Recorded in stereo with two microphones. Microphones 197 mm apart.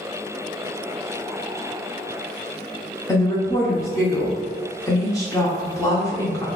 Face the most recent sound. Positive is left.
turn(degrees=20)  # may be behind; listen again after turning